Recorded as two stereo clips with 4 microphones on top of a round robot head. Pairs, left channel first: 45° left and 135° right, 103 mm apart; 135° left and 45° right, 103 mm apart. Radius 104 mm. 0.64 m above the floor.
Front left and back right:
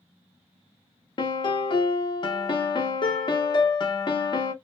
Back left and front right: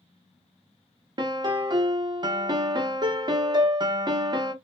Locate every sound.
1.2 s a piano: 5° left, 0.6 m